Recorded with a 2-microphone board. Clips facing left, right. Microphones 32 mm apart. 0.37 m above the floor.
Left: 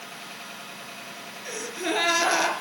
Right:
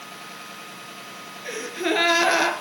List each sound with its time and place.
1.4 s a gasp: 20° right (ahead or behind), 4 m